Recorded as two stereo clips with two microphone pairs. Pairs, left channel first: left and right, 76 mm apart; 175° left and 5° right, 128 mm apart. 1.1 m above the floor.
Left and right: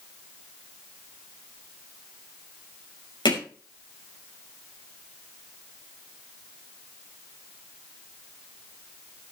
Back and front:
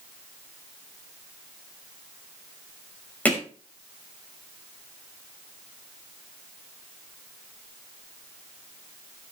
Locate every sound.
3.2 s hammering: 95° left, 5 m